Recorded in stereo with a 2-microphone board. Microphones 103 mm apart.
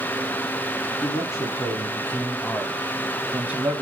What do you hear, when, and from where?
1.0 s a man speaking: 45° left (ahead or behind), 2.0 m; by 3.8 s 20° right (ahead or behind), 1.6 m